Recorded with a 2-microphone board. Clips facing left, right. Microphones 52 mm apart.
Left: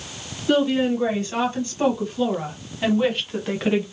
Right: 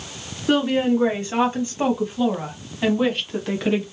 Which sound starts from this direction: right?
A woman speaking, at 0.5 s.